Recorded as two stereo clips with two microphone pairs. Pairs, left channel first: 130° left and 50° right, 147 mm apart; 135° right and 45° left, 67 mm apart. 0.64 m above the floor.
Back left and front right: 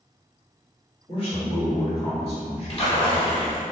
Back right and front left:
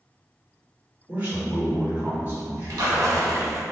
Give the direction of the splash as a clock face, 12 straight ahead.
9 o'clock.